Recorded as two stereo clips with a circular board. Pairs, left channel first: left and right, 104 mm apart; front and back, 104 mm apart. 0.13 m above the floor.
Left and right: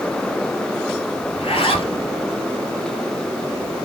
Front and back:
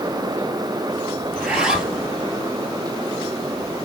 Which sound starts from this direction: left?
A zipper, at 1.3 s.